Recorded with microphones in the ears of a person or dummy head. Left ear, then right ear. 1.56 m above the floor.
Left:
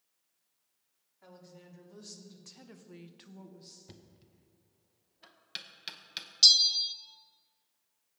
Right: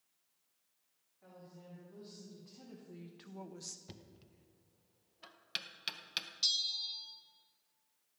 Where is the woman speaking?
75° left (ahead or behind), 3.5 m; by 3.8 s 55° right (ahead or behind), 1.0 m.